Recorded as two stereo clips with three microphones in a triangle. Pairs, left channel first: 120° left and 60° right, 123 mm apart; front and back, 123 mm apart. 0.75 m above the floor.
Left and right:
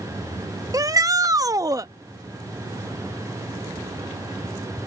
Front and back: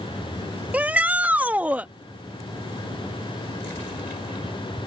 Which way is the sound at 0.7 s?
110° right.